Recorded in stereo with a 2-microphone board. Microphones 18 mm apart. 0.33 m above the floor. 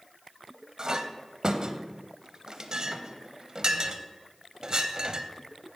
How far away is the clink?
About 0.7 m.